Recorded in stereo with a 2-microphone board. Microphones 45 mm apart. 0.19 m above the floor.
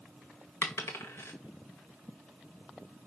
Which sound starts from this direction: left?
A dropped coin, at 0.6 s.